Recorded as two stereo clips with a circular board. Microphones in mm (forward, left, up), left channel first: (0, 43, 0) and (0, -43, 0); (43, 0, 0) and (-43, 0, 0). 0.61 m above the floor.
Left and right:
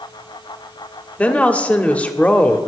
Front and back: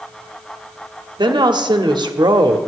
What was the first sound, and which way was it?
A woman speaking, 165° left.